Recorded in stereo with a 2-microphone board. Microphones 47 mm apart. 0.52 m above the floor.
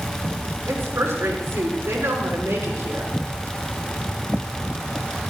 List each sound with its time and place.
0.7 s a woman speaking: 80° right, 5 m